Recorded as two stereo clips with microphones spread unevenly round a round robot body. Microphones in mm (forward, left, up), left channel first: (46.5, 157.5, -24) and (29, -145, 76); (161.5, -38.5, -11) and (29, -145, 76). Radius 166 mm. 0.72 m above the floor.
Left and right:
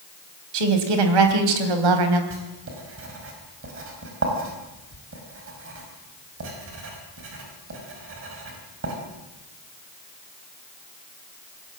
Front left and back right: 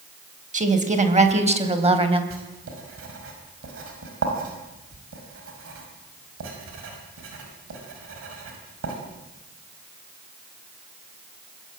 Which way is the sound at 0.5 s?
90° right.